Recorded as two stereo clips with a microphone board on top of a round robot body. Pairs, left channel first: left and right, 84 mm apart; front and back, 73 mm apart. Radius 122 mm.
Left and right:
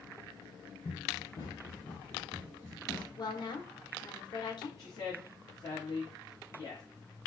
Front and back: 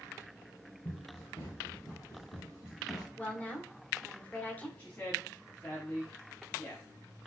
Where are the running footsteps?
50° left, 4 m; by 3.1 s 35° left, 4.5 m.